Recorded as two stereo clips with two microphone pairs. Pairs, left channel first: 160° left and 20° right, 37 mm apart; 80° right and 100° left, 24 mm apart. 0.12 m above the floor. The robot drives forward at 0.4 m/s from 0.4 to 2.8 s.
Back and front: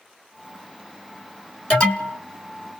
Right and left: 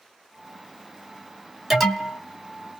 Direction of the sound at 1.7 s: 175° left.